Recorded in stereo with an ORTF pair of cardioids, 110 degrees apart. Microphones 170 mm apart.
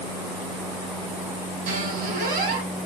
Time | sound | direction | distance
1.7 | a squeak | 70° right | 4 m